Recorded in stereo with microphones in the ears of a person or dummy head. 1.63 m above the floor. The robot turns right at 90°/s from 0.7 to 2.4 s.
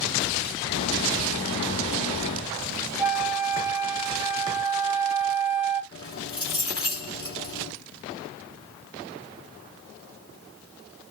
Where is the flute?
5° right (ahead or behind), 1.1 m.